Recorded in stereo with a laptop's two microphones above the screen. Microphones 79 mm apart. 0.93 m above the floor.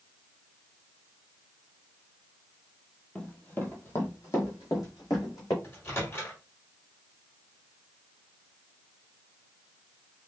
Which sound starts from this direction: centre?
Running footsteps, at 3.1 s.